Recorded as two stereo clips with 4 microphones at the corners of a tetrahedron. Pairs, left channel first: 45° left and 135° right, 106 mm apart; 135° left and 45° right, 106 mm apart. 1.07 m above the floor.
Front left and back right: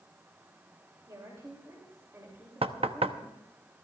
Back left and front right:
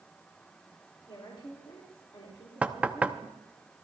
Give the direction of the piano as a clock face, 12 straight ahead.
No piano in this recording.